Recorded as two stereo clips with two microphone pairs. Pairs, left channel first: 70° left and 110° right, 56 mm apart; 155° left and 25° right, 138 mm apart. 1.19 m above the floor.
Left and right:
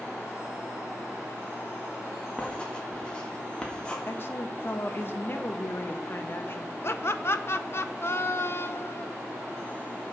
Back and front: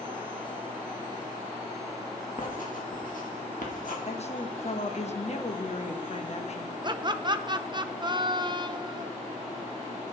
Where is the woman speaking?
120° left, 1.0 m.